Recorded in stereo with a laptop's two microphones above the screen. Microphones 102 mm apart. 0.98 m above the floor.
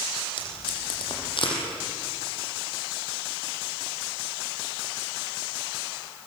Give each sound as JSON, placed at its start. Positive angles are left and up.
{"t": 0.4, "sound": "tape being pulled", "side_deg": 55, "distance_m": 6.5}